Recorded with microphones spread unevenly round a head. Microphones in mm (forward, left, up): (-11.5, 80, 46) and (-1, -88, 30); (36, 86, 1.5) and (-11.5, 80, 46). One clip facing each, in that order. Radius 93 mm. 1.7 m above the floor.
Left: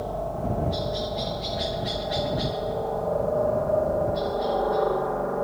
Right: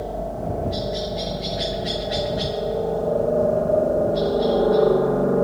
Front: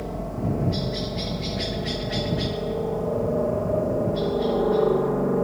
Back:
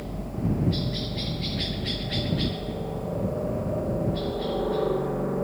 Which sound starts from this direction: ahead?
A helicopter, at 0.0 s.